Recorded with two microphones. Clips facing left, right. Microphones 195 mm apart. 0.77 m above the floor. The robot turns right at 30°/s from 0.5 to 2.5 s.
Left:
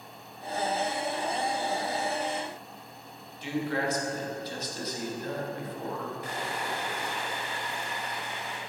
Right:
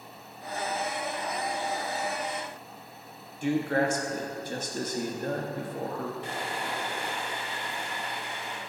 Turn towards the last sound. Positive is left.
turn(degrees=-30)  # may be behind; listen again after turning